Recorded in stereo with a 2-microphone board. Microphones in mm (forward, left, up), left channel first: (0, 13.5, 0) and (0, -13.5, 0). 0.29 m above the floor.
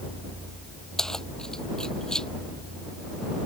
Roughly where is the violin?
No violin in this recording.